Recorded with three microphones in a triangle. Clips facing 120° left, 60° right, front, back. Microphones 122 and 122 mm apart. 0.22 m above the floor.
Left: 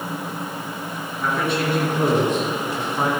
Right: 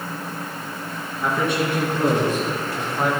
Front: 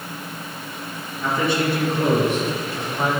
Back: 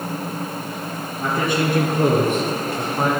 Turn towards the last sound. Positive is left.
turn(degrees=170)